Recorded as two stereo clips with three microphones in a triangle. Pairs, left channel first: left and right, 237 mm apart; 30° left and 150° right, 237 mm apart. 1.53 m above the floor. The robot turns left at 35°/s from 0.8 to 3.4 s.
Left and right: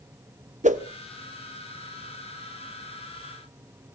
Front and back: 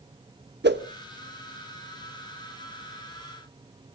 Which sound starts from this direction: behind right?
A whoosh, at 0.6 s.